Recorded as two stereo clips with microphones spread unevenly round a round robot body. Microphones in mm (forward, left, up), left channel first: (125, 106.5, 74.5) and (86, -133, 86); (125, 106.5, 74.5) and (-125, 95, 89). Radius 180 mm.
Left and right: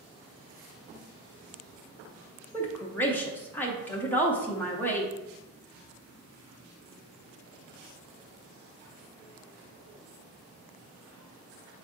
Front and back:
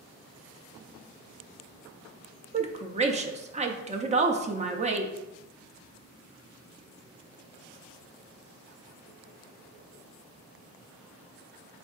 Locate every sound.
2.5 s a woman speaking: 145° left, 0.6 m